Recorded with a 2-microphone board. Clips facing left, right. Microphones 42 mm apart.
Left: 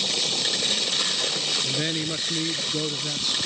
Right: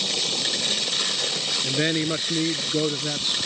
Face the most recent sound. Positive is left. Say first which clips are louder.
# right 4 dB
turn(degrees=-25)  # may be behind; listen again after turning